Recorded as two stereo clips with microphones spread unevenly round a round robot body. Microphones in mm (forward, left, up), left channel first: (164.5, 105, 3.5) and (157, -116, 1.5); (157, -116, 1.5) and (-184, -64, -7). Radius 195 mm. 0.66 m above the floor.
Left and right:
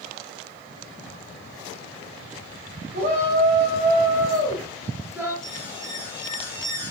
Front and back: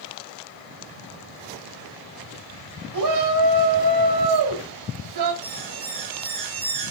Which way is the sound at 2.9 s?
160° right.